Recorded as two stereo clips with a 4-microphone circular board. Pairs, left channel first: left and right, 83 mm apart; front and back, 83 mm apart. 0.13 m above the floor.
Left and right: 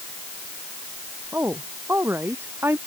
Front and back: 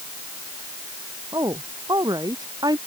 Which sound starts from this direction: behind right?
A woman speaking, at 1.3 s.